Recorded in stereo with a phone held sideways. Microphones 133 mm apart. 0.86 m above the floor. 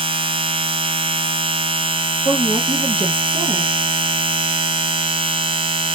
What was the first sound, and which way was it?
A machine running, 40° right (ahead or behind).